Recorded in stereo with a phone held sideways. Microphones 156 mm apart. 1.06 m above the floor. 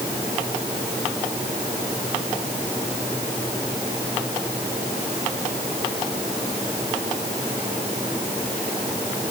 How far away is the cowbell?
No cowbell in this recording.